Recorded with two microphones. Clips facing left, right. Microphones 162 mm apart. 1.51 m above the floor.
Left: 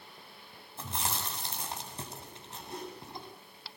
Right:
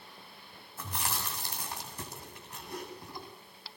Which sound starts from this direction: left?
Chewing, at 0.8 s.